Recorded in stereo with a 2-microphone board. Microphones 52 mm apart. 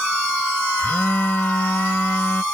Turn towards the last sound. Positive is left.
turn(degrees=40)  # may be behind; listen again after turning